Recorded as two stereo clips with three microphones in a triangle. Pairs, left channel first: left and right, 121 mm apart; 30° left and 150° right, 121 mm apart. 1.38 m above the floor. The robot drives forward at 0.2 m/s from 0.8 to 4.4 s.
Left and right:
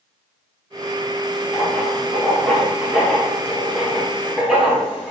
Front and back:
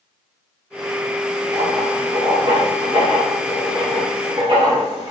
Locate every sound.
1.5 s writing: 175° right, 1.0 m; by 5.1 s straight behind, 1.4 m